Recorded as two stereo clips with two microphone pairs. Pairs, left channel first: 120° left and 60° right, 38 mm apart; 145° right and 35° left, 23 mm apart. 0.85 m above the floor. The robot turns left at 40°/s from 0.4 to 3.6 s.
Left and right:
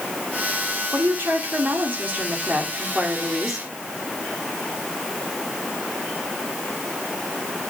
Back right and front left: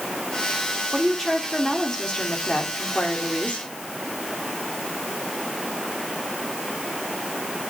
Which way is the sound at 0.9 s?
45° right.